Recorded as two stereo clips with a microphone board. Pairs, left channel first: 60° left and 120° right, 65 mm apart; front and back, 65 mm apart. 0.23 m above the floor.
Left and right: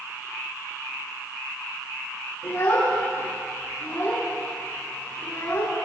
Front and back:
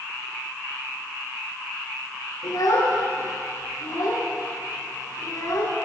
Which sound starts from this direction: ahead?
A child speaking, at 2.4 s.